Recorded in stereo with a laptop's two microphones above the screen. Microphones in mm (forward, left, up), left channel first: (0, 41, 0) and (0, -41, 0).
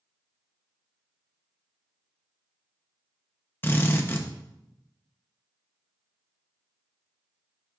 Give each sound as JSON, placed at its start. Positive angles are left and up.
{"t": 3.6, "sound": "a drill", "side_deg": 25, "distance_m": 0.8}